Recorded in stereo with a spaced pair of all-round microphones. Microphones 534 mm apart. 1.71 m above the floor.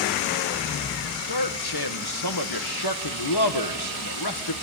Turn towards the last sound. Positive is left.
turn(degrees=45)  # may be behind; listen again after turning